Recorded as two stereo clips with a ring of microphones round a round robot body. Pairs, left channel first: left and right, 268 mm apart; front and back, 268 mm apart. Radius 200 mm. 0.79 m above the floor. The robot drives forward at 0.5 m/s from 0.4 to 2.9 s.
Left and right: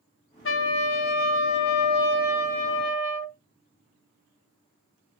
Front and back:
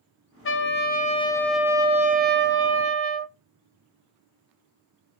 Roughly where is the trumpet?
Ahead left.